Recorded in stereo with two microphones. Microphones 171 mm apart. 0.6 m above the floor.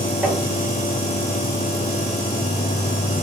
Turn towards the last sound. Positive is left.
turn(degrees=0)  # may be behind; listen again after turning